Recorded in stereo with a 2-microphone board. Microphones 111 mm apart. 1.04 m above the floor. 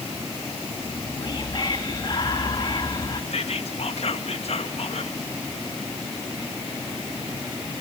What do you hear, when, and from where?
0.8 s whispering: 45° left (ahead or behind), 1.4 m
3.3 s whispering: 65° left (ahead or behind), 1.3 m